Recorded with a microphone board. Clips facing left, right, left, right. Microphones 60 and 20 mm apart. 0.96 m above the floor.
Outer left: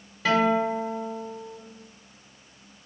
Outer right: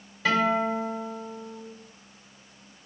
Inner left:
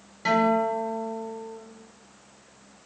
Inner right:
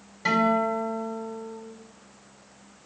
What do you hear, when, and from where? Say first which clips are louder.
0.2 s a guitar: outer left 2 dB, inner left 1 dB; 10° left (ahead or behind), 3.5 m